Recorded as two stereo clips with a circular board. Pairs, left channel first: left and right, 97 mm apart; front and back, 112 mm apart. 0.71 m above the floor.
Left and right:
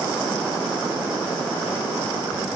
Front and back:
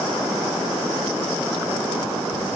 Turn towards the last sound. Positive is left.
No sound to turn to.